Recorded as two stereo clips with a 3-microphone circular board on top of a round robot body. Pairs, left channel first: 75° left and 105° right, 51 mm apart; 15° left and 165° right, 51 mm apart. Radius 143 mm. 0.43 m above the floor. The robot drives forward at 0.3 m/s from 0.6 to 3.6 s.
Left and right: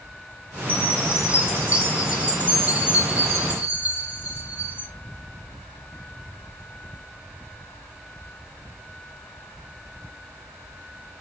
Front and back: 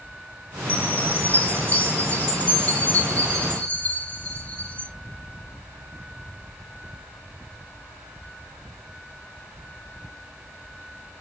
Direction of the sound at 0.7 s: 45° right.